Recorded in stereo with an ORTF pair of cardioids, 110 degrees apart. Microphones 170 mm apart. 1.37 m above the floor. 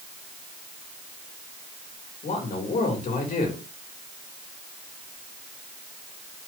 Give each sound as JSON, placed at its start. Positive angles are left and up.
{"t": 2.2, "sound": "a man speaking", "azimuth_deg": 50, "distance_m": 4.5}